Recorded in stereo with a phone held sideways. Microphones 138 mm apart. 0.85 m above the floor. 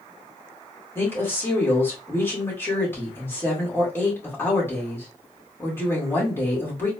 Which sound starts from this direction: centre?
A woman speaking, at 0.9 s.